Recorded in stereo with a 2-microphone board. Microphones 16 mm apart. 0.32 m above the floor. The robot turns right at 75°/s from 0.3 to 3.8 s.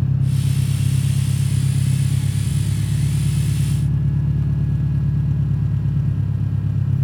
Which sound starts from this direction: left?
An engine running, at 0.0 s.